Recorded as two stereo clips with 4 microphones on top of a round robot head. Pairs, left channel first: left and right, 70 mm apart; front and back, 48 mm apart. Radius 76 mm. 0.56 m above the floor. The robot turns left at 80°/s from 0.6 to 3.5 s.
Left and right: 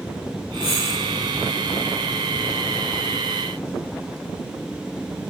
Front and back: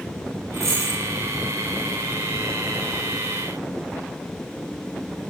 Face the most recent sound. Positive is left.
turn(degrees=-60)